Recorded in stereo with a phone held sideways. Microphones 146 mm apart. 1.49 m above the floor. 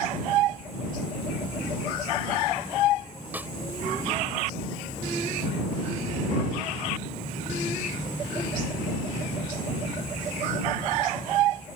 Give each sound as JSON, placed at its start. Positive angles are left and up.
{"t": 3.3, "sound": "a snare drum", "side_deg": -10}